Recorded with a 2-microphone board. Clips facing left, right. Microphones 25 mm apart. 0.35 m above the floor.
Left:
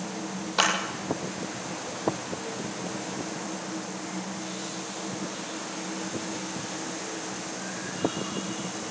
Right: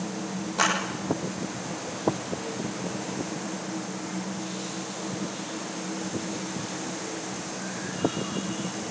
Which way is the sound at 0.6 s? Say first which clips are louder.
Left 1 dB; 60° left (ahead or behind).